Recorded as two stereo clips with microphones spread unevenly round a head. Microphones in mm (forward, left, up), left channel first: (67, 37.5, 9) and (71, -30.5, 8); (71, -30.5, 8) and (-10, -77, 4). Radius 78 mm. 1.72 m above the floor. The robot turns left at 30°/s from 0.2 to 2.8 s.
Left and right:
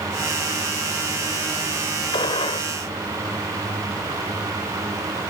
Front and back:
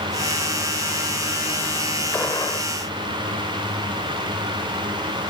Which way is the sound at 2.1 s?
105° left.